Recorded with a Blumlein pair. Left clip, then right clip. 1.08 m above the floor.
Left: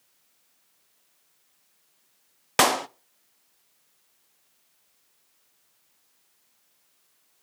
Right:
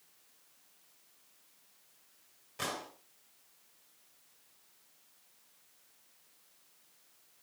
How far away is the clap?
About 0.9 m.